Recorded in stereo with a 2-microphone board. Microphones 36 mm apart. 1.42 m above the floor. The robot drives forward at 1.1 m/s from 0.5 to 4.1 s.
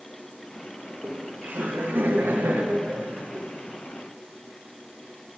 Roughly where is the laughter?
Right.